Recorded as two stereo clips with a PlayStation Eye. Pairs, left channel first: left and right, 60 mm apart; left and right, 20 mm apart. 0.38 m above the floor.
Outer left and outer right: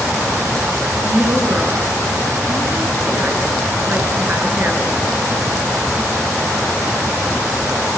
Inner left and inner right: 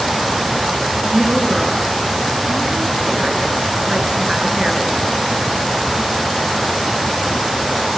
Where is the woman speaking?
30° right (ahead or behind), 6 m.